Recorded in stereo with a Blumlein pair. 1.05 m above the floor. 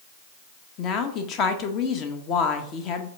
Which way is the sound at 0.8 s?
35° left.